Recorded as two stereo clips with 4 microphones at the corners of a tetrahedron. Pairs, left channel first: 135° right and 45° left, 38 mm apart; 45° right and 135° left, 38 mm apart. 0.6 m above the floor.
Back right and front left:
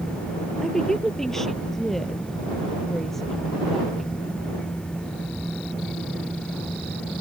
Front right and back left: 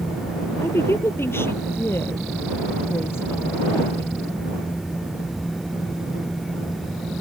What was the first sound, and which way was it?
A woman speaking, 55° right.